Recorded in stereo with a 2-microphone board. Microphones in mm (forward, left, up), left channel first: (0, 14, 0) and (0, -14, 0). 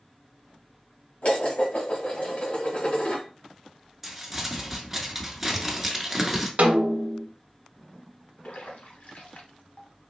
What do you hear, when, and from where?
1.2 s dishes clattering: 60° left (ahead or behind), 1.5 m
4.0 s crumpling: 5° right (ahead or behind), 0.9 m
6.6 s a snare drum: 80° right, 0.7 m
8.4 s a splash: 70° left (ahead or behind), 1.0 m